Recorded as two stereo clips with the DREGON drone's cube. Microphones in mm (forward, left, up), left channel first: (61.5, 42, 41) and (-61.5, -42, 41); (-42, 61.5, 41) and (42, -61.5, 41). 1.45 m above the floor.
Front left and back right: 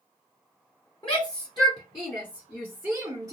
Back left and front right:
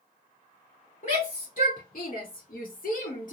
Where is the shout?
90° left, 1.5 m; by 3.3 s 145° left, 0.9 m.